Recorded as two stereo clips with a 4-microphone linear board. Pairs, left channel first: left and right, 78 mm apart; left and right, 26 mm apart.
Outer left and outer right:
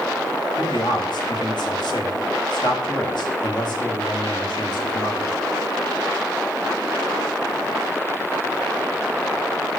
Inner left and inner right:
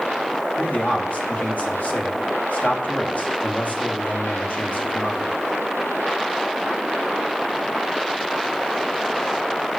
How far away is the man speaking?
About 2.5 m.